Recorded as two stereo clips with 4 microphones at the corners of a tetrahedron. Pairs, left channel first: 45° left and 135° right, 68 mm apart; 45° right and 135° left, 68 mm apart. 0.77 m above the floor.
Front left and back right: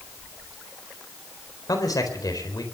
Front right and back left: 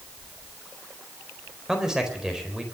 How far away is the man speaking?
About 4 m.